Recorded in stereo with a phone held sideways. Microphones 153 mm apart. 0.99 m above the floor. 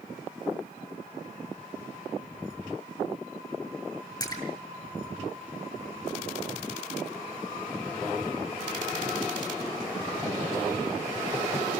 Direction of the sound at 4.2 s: 25° left (ahead or behind).